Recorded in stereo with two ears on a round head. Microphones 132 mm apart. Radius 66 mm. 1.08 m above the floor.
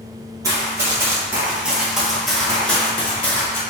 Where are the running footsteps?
25° right (ahead or behind), 1.2 m; by 3.6 s 15° left (ahead or behind), 1.5 m.